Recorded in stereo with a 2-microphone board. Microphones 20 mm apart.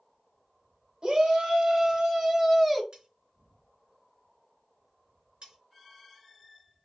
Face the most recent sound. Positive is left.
turn(degrees=-70)  # may be behind; listen again after turning